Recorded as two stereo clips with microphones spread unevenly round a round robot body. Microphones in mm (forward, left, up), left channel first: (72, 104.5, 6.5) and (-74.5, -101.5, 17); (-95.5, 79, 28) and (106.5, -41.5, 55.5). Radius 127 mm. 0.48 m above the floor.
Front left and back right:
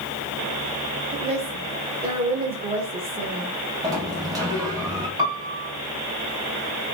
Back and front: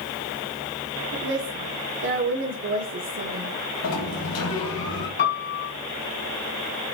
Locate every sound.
1.1 s a woman speaking: 60° right, 1.7 m
3.8 s a sliding door: 160° left, 2.5 m
5.2 s a piano: 165° left, 2.5 m